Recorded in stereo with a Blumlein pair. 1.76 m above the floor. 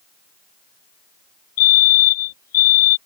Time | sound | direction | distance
1.6 | a fire alarm | 50° left | ?